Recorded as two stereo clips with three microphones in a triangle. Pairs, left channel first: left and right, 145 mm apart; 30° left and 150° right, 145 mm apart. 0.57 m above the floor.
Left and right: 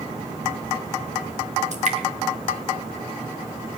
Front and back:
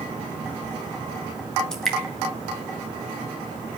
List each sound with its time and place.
1.7 s dripping: 55° right, 2.5 m